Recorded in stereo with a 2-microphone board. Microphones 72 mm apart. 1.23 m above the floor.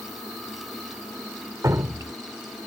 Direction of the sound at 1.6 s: 50° right (ahead or behind).